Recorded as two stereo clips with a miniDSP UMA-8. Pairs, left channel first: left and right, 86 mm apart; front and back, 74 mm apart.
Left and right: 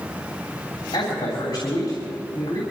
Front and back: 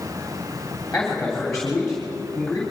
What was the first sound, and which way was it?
A man speaking, 85° left.